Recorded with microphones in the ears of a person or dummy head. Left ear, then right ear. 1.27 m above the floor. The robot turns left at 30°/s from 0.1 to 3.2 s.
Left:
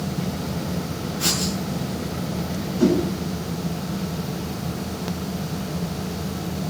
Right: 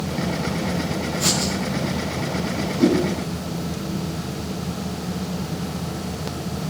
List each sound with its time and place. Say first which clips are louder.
1.2 s writing: right 1 dB; 10° right (ahead or behind), 10 m; by 1.5 s centre (ahead or behind), 10 m
2.8 s a whoosh: right 1 dB; 55° left (ahead or behind), 9.5 m; by 3.0 s 60° left (ahead or behind), 9.5 m